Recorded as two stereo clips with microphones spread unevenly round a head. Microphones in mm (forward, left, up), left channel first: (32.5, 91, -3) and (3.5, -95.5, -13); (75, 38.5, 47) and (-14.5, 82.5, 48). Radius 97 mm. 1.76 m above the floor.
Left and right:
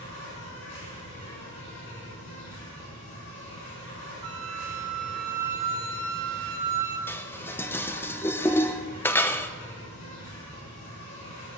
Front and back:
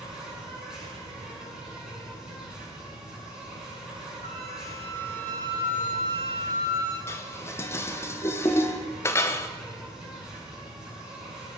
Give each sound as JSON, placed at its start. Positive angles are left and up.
{"t": 0.0, "sound": "an insect", "azimuth_deg": 70, "distance_m": 8.0}
{"t": 4.2, "sound": "a flute", "azimuth_deg": -70, "distance_m": 4.5}
{"t": 7.1, "sound": "dishes clattering", "azimuth_deg": 15, "distance_m": 0.8}